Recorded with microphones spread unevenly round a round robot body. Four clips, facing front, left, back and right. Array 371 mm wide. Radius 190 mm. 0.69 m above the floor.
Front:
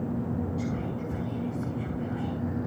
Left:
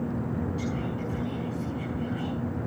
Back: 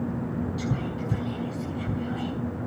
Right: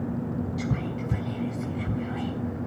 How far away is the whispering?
About 5.5 m.